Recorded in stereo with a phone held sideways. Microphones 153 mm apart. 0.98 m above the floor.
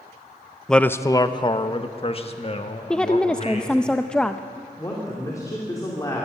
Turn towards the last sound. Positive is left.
turn(degrees=20)  # may be behind; listen again after turning